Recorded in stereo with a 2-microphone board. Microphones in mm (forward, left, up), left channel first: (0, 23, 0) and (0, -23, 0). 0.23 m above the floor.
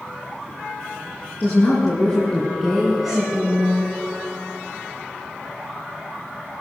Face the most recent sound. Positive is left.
turn(degrees=-35)  # may be behind; listen again after turning